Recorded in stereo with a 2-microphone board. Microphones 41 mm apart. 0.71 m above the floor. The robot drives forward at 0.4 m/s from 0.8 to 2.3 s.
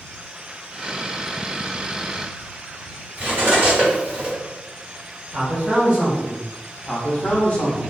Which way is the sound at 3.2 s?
40° right (ahead or behind).